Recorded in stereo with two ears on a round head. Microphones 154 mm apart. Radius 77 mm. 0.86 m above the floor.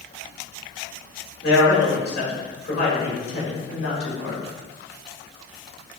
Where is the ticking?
No ticking in this recording.